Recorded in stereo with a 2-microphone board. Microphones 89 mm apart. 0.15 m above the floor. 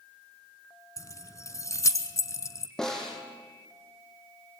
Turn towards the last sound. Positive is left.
turn(degrees=5)  # may be behind; listen again after turning